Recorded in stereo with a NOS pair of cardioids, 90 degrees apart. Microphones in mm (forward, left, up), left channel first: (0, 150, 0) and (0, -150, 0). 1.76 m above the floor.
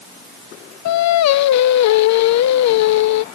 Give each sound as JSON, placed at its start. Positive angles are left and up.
{"t": 0.8, "sound": "singing", "azimuth_deg": 65}